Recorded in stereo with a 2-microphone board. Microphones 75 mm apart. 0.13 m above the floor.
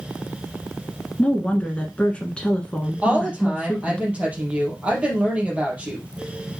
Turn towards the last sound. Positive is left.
turn(degrees=-15)  # may be behind; listen again after turning